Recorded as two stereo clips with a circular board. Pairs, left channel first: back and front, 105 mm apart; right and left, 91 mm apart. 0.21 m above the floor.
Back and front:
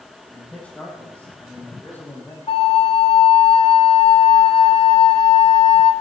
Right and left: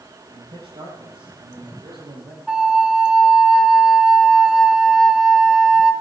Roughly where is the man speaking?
Left.